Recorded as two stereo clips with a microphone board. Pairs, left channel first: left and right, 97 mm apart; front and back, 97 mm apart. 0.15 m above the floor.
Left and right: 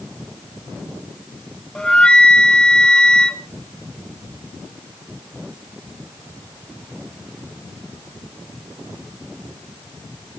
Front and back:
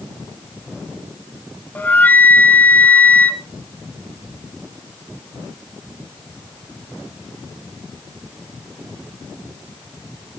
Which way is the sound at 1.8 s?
25° left.